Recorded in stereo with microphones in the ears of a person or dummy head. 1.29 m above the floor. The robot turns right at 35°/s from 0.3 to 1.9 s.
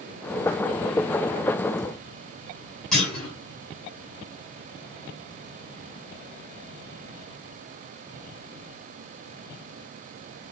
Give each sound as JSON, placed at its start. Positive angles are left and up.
{"t": 2.9, "sound": "a clunk", "side_deg": 0, "distance_m": 1.6}